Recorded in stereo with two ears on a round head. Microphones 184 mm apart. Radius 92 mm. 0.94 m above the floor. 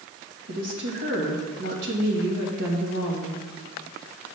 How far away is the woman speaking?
About 1.5 m.